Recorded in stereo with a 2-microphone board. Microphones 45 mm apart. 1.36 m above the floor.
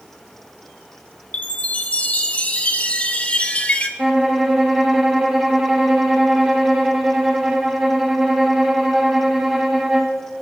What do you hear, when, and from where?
1.3 s a chime: 35° left (ahead or behind), 1.0 m
4.0 s a violin: 10° right (ahead or behind), 1.3 m